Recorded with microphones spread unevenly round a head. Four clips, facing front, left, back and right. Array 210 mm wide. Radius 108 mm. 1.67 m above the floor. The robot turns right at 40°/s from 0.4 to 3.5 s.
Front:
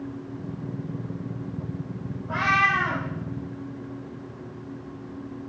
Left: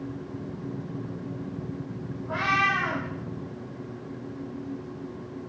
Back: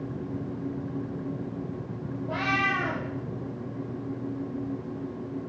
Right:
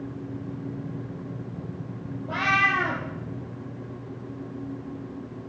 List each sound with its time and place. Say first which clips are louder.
2.3 s a cat meowing: right 1 dB, front 5 dB; 135° right, 5.5 m; by 3.0 s 110° right, 5.5 m